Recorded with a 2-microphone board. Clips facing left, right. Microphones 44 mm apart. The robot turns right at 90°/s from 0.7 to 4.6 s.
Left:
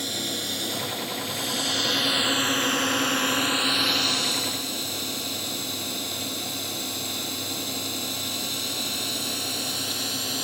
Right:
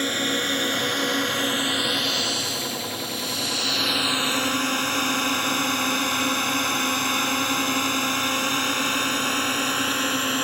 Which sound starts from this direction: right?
A drone, at 0.0 s.